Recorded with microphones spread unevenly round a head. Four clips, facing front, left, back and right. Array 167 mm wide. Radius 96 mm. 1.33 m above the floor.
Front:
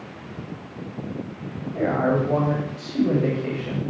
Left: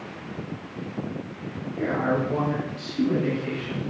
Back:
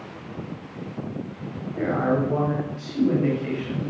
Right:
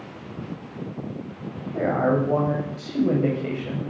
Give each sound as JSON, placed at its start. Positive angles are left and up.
{"t": 1.7, "sound": "a man speaking", "azimuth_deg": -50, "distance_m": 9.5}